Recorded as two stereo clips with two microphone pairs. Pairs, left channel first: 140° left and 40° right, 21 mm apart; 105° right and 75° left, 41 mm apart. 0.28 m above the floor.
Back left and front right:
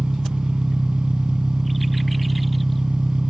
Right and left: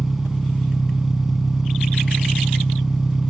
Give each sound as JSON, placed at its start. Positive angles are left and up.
{"t": 0.0, "sound": "an engine running", "azimuth_deg": -5, "distance_m": 2.0}